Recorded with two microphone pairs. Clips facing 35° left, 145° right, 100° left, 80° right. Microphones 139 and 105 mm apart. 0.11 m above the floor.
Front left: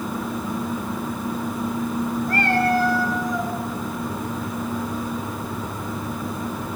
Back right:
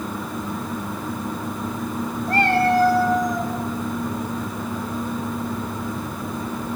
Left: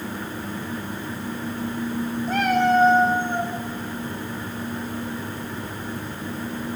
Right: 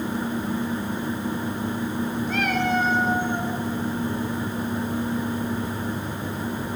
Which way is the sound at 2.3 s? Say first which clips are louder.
Back right 4 dB, left 7 dB; 150° left.